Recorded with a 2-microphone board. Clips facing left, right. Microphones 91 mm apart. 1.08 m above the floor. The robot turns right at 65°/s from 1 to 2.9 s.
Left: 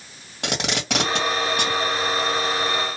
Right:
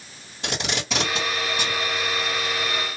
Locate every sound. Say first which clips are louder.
0.4 s tape being pulled: left 2 dB; 70° left (ahead or behind), 1.9 m; by 1.8 s 55° left (ahead or behind), 1.9 m